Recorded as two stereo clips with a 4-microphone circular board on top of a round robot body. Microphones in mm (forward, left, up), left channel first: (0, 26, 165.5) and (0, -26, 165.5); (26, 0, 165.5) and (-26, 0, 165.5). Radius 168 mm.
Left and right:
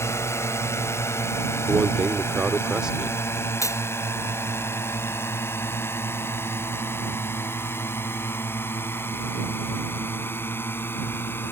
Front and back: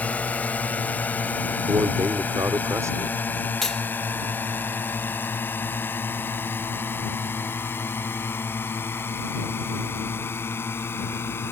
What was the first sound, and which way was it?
A drone, 60° left.